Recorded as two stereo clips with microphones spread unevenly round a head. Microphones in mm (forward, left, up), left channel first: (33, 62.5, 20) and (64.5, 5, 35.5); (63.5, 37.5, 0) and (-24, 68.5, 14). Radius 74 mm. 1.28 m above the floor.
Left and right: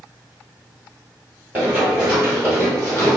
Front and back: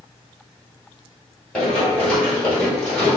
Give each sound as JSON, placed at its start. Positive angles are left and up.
{"t": 1.5, "sound": "running footsteps", "azimuth_deg": -110, "distance_m": 1.6}